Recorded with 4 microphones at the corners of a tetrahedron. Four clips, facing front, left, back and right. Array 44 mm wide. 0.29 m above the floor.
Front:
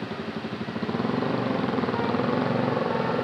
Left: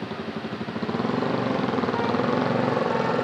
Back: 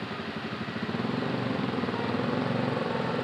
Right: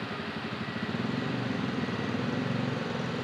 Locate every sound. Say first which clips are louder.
0.0 s a motorcycle: left 4 dB, front 2 dB; 60° left; by 3.2 s 65° left